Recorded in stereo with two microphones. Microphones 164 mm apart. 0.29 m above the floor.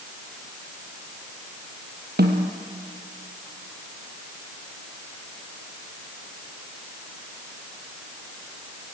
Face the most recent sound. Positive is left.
turn(degrees=-90)